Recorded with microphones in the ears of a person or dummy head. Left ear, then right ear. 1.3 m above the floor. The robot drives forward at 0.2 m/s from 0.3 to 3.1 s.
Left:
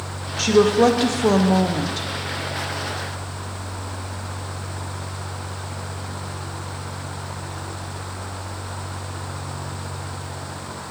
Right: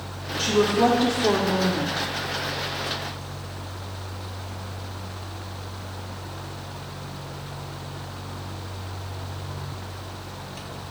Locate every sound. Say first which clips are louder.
0.4 s a woman speaking: left 5 dB; 55° left (ahead or behind), 0.6 m; by 2.1 s 60° left (ahead or behind), 0.6 m